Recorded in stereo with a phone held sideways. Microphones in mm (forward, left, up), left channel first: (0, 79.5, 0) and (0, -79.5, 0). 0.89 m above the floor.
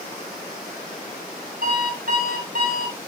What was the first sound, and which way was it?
An alarm clock, 70° right (ahead or behind).